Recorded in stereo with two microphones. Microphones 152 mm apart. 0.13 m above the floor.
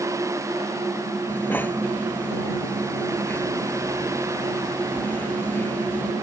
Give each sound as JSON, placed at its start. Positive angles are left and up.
{"t": 1.3, "sound": "breathing", "side_deg": 15}